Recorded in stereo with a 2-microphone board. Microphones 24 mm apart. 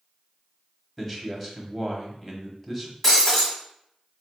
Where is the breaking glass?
10° left (ahead or behind), 1.5 m.